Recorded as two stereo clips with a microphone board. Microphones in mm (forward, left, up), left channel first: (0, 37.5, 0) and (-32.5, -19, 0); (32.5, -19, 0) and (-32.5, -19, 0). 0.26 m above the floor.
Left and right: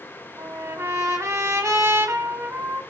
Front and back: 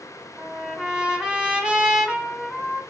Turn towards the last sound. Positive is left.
turn(degrees=-105)